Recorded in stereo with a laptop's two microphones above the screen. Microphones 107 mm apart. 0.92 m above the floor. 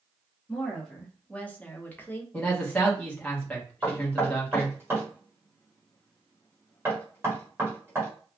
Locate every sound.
0.5 s a woman speaking: 5° left (ahead or behind), 1.0 m; by 2.2 s 20° left (ahead or behind), 0.8 m
2.3 s a man speaking: 10° left (ahead or behind), 1.1 m
3.8 s knocking: 25° right (ahead or behind), 1.3 m